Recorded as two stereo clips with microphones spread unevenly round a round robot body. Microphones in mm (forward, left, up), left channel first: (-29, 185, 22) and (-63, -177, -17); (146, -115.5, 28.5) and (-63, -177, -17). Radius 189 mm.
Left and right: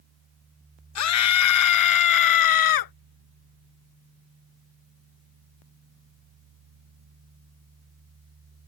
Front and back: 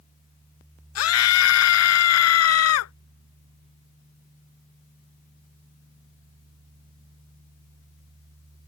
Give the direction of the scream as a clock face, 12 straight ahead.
11 o'clock.